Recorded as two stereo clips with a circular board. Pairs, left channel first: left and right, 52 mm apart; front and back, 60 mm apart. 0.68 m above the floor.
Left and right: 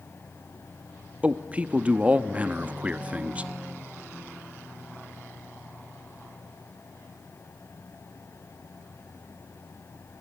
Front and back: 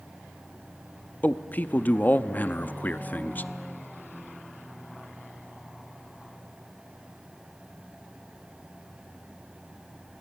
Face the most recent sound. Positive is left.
turn(degrees=-40)